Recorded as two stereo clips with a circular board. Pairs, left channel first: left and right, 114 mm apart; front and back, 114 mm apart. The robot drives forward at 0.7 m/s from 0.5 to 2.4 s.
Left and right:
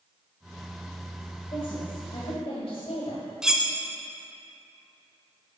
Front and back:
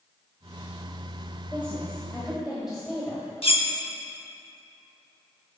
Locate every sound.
1.5 s a woman speaking: 65° left, 1.6 m; by 3.2 s 95° left, 1.5 m
3.4 s cutlery clinking: 10° right, 0.6 m